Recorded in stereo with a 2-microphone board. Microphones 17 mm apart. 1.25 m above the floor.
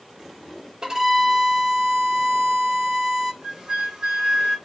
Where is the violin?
55° right (ahead or behind), 2 m.